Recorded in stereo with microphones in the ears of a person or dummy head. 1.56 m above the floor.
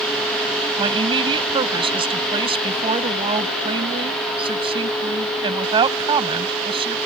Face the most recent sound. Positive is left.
turn(degrees=-25)  # may be behind; listen again after turning